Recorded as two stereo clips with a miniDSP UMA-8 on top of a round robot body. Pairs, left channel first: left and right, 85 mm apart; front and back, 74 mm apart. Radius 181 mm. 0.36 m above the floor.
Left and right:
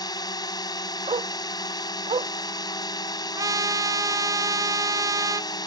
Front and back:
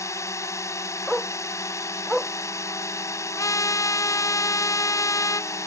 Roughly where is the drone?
Ahead left.